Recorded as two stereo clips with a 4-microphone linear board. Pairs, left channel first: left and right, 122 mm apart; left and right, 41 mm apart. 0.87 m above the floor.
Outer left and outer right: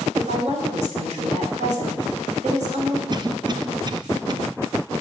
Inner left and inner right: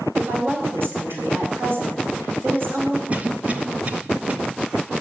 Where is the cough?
35° right (ahead or behind), 1.0 m.